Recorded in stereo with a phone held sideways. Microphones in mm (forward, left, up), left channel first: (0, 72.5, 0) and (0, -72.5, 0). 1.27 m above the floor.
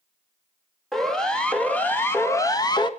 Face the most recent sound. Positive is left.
turn(degrees=30)  # may be behind; listen again after turning